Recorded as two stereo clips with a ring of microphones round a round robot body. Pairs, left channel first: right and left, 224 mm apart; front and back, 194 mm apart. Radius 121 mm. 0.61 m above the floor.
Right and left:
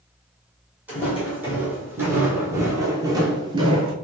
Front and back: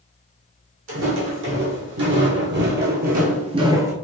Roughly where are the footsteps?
Behind.